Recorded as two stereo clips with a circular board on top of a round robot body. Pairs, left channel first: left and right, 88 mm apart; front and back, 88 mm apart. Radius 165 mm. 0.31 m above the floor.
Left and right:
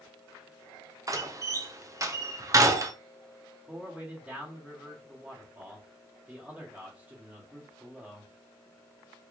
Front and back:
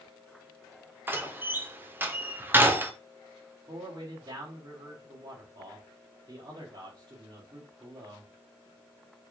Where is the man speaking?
160° right, 2.5 m.